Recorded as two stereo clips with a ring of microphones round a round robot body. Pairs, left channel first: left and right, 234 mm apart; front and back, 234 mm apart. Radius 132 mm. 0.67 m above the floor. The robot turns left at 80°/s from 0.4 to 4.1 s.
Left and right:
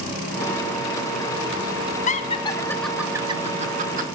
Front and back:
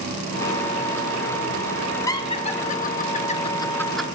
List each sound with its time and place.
2.1 s laughter: 65° left, 0.8 m; by 4.0 s 95° right, 0.8 m